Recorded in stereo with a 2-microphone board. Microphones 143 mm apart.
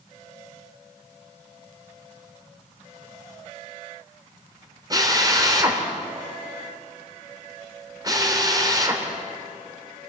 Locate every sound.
4.9 s a drill: 30° right (ahead or behind), 3 m